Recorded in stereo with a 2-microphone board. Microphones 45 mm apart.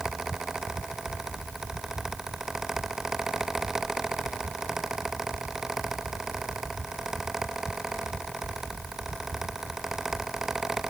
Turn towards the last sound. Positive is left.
No sound to turn to.